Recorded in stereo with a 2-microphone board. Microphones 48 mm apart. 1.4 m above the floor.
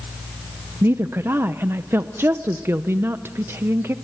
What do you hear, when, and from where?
0.8 s a woman speaking: 50° right (ahead or behind), 0.7 m